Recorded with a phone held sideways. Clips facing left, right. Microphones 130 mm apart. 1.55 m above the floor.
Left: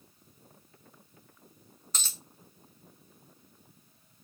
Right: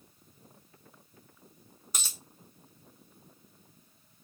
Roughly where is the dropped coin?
Centre.